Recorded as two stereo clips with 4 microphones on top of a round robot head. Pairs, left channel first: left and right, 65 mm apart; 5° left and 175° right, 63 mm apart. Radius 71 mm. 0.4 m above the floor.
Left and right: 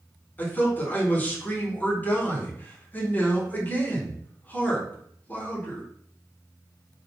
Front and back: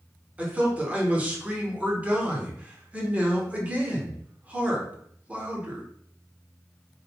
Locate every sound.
0.4 s a man speaking: 135° left, 1.0 m